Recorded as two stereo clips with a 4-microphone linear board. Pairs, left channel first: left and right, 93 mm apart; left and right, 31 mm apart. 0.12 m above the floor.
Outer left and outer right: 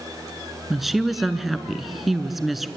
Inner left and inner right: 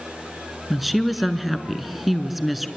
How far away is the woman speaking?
About 1.2 m.